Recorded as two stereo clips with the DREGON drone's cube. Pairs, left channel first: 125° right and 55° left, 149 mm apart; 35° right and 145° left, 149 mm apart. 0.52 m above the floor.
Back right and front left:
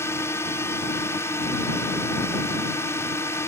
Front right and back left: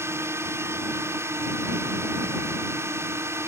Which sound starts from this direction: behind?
A drone, at 0.0 s.